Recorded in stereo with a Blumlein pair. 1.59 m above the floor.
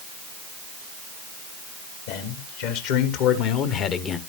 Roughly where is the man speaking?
Ahead left.